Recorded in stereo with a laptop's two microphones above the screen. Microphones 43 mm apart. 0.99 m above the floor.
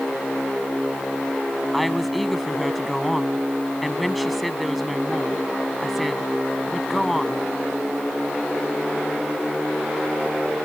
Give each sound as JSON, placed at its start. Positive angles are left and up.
{"t": 1.7, "sound": "a woman speaking", "side_deg": 0}